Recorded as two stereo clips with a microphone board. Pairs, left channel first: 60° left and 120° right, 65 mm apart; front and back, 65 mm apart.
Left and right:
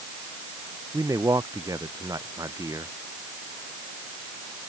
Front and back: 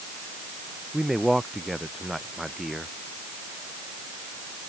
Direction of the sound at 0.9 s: 95° right.